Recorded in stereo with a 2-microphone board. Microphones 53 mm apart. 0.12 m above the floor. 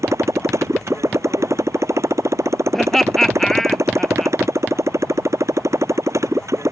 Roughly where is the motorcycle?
Right.